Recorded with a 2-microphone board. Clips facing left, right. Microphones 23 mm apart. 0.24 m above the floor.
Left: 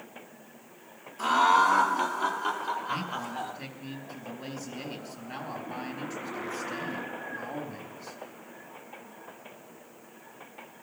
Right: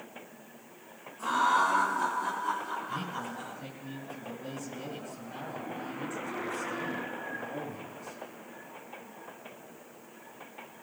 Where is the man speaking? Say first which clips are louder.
Left 3 dB; 65° left (ahead or behind), 4 m.